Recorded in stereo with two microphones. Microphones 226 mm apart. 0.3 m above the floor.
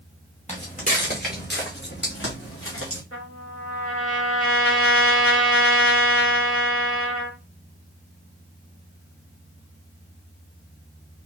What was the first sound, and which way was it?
Footsteps, 30° left (ahead or behind).